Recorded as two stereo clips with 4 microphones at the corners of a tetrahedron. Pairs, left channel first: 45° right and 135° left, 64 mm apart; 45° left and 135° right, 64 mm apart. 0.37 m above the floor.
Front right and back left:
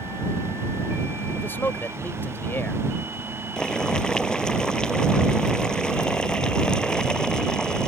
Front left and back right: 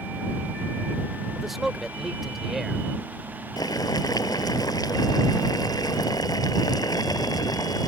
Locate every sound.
1.4 s a man speaking: 50° right
3.6 s boiling: 35° left